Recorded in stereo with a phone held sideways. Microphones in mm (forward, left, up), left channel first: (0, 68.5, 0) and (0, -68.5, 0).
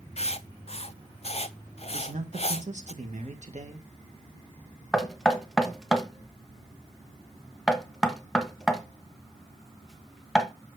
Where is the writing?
50° left (ahead or behind), 0.5 m.